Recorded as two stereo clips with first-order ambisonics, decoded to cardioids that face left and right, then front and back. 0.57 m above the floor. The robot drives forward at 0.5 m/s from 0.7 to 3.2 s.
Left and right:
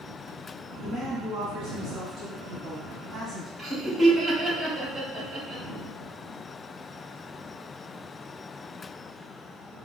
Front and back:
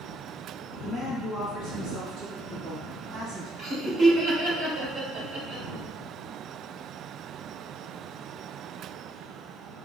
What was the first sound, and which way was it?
A woman speaking, 170° right.